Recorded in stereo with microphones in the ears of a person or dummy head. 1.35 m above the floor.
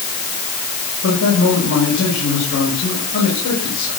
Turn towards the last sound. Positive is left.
turn(degrees=75)  # may be behind; listen again after turning